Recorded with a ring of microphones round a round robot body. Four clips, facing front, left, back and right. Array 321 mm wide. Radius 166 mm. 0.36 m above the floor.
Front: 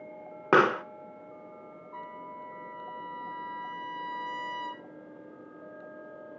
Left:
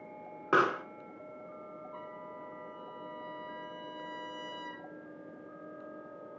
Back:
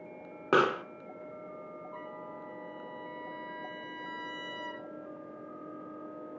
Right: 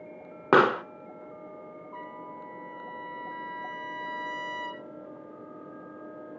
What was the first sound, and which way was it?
A pop, 70° right.